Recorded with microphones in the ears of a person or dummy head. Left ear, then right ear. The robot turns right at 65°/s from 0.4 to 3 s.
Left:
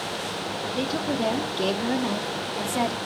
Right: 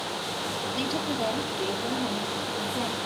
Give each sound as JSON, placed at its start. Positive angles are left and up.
{"t": 0.8, "sound": "a woman speaking", "azimuth_deg": 0, "distance_m": 0.8}